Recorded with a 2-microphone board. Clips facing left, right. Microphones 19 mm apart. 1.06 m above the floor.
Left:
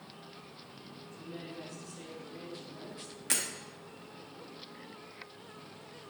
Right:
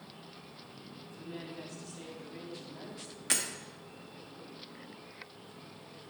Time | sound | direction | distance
1.2 | a woman speaking | 30° right (ahead or behind) | 2.5 m
3.3 | breaking glass | 10° right (ahead or behind) | 1.0 m